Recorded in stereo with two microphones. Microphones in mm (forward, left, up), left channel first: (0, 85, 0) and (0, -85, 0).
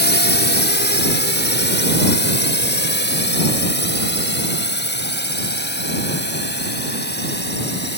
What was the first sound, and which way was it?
A drone, 80° left.